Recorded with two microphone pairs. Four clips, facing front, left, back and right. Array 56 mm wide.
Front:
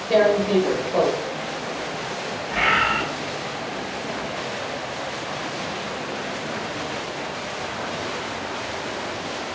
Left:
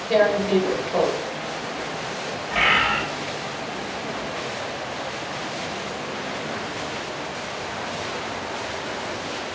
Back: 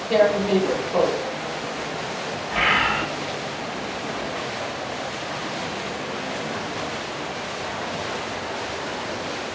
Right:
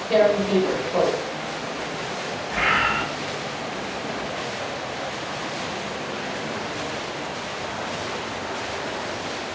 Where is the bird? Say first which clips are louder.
Left 1 dB, even; 95° left, 1.6 m.